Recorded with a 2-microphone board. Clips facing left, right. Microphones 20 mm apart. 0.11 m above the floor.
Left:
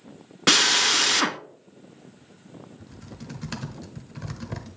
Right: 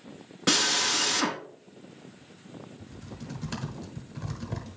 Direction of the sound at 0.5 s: 30° left (ahead or behind).